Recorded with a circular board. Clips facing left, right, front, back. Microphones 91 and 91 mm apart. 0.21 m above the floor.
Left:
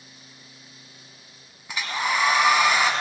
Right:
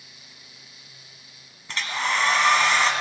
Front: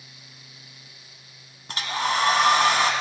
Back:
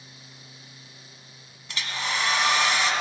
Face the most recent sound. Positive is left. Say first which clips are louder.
# even, front 6 dB
turn(degrees=10)